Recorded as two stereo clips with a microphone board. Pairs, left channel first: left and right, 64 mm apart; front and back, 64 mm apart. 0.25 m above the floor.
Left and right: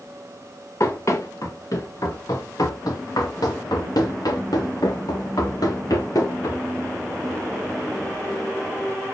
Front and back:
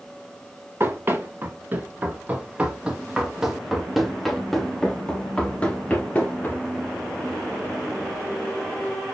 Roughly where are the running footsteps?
Behind left.